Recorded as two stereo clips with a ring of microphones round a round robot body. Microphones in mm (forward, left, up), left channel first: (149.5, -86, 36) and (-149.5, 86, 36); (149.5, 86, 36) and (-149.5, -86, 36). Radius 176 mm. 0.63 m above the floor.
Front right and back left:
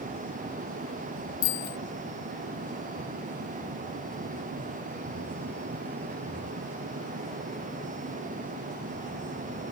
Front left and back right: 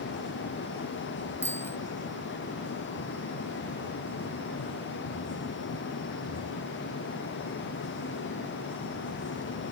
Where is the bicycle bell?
55° right.